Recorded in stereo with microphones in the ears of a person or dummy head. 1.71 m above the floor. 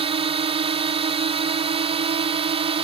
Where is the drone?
30° right (ahead or behind).